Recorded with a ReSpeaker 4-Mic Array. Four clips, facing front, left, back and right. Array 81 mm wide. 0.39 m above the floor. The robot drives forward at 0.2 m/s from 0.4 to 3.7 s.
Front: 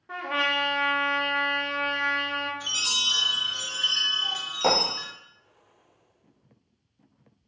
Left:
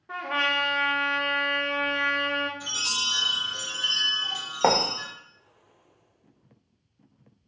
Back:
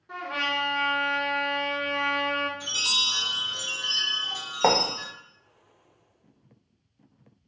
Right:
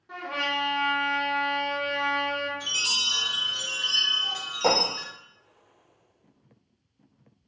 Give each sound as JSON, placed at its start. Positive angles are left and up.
{"t": 0.1, "sound": "a trumpet", "azimuth_deg": 45, "distance_m": 0.6}
{"t": 2.6, "sound": "a chime", "azimuth_deg": -40, "distance_m": 1.3}
{"t": 4.6, "sound": "writing", "azimuth_deg": 135, "distance_m": 0.7}